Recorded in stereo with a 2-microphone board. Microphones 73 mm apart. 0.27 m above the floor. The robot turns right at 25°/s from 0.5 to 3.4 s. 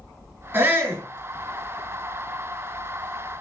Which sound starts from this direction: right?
A shout, at 0.5 s.